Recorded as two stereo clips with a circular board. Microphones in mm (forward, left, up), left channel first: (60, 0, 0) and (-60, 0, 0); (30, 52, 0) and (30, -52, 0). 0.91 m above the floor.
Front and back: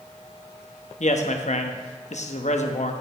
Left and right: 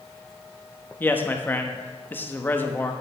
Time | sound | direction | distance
1.0 | a man speaking | 20° left | 1.0 m